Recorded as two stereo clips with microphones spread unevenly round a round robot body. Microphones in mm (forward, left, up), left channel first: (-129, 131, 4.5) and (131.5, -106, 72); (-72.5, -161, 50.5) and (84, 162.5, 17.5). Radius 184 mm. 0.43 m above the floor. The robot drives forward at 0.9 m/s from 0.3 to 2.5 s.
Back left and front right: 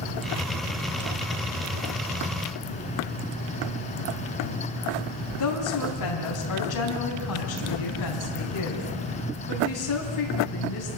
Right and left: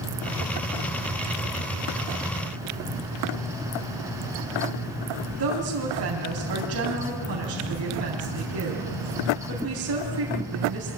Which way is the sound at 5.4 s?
110° left.